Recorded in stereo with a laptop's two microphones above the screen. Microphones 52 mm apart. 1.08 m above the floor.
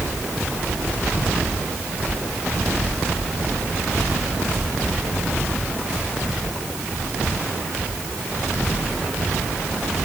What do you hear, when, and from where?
Only background noise.